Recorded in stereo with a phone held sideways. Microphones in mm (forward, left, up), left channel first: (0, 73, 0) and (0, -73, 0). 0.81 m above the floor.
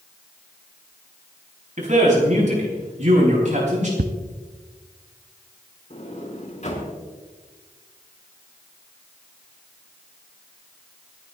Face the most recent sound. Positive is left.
turn(degrees=50)  # may be behind; listen again after turning